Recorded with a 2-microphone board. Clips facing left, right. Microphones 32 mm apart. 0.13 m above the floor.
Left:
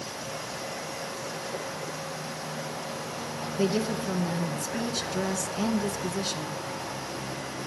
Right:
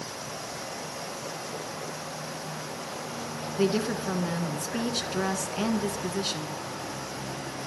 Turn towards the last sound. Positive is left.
turn(degrees=-25)  # may be behind; listen again after turning